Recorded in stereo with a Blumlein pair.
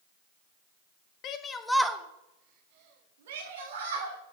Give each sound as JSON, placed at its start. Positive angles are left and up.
{"t": 1.2, "sound": "a shout", "azimuth_deg": 35, "distance_m": 0.9}